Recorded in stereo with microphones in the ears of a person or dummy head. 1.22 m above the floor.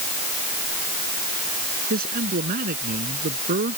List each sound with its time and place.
1.9 s a man speaking: 45° right (ahead or behind)